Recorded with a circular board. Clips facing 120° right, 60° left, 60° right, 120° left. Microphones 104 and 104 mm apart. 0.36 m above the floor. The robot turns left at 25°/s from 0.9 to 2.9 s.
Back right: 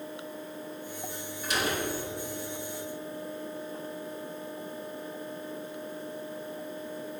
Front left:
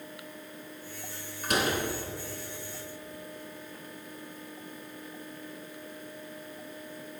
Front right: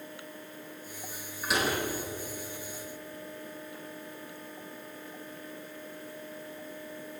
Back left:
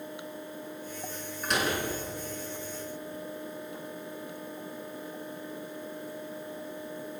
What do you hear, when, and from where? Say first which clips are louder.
1.4 s a door slam: front left 2 dB, even; 25° left, 3 m; by 1.8 s 20° left, 3 m